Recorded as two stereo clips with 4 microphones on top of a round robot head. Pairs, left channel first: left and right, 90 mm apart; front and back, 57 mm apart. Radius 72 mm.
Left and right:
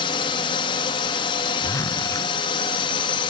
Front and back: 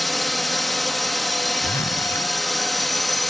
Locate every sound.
0.0 s a drone: 90° left
1.6 s a zipper: 35° left